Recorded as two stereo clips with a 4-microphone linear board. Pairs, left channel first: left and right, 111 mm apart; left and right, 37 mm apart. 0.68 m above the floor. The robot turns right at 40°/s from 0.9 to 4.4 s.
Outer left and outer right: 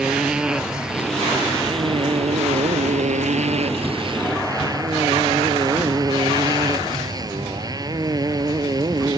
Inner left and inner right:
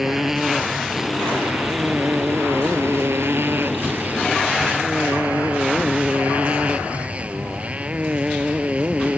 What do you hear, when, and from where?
0.0 s a motorcycle: 175° right; by 9.2 s 35° right